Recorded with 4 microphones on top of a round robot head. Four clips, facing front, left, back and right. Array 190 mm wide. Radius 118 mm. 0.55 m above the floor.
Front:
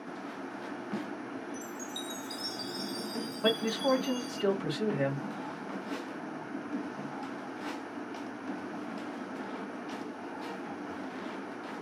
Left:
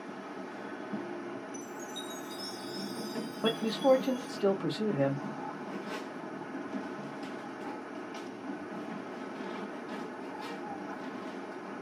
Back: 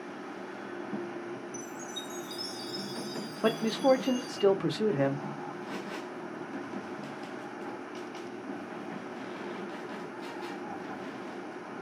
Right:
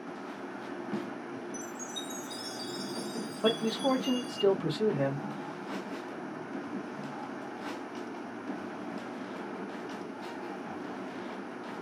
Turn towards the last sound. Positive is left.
turn(degrees=-175)